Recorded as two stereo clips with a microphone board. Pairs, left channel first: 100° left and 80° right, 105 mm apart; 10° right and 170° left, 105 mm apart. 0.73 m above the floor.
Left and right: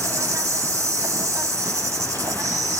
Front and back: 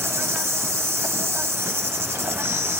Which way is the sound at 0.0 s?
130° right.